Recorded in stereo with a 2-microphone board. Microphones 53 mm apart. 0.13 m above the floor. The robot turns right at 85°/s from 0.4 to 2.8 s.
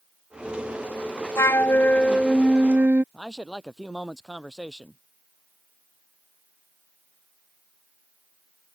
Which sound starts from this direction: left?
A flute, at 1.4 s.